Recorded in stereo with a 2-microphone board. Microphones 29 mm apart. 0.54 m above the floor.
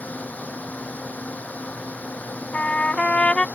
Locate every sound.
0.0 s a drone: 70° left (ahead or behind)
2.5 s a trumpet: 40° left (ahead or behind)